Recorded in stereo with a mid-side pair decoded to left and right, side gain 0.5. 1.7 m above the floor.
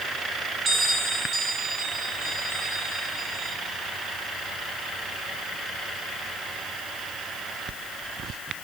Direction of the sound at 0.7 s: 45° right.